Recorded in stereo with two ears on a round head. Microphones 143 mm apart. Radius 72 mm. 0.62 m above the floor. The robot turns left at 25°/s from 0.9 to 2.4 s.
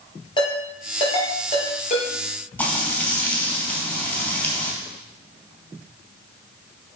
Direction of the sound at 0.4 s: 30° left (ahead or behind).